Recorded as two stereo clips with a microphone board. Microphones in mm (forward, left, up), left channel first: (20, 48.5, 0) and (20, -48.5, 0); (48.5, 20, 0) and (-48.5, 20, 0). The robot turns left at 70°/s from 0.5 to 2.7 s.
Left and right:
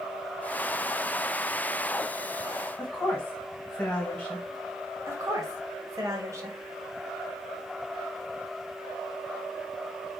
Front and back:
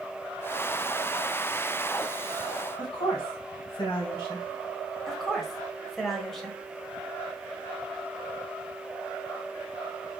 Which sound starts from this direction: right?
A woman speaking, at 5.1 s.